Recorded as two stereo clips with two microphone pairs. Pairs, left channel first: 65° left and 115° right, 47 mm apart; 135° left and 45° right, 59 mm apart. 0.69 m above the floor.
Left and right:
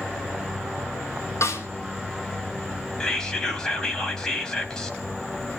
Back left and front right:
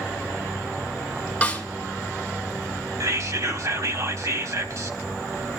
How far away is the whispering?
About 3.5 m.